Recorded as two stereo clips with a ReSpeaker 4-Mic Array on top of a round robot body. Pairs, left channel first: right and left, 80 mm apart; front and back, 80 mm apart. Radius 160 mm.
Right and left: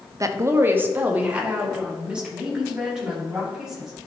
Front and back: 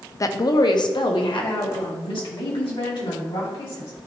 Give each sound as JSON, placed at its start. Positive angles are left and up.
{"t": 0.2, "sound": "a woman speaking", "azimuth_deg": 45, "distance_m": 0.7}